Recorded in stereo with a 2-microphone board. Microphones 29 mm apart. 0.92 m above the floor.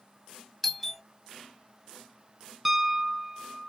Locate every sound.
0.6 s a doorbell: centre (ahead or behind), 1.1 m
2.6 s a piano: 5° right (ahead or behind), 0.7 m